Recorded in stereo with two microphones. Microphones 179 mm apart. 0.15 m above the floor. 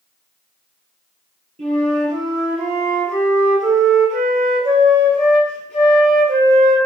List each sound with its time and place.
1.6 s a flute: 40° right (ahead or behind), 3.5 m